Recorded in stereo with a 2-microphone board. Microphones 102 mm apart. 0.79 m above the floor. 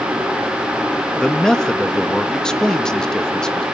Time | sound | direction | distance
1.2 | a man speaking | 5° left (ahead or behind) | 1.0 m